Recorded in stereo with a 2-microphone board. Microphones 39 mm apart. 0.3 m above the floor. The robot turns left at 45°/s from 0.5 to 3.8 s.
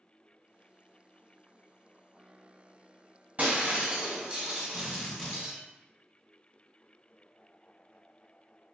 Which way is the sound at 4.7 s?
15° left (ahead or behind).